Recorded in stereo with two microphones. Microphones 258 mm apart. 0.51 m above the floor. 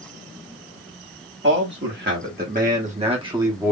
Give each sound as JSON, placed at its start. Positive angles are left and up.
{"t": 1.4, "sound": "a man speaking", "side_deg": -50, "distance_m": 1.7}